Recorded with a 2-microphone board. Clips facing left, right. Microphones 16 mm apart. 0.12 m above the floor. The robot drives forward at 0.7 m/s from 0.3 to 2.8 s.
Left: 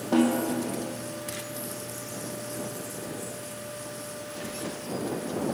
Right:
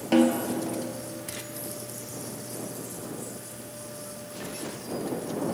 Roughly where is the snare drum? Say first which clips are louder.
Right 2 dB; right.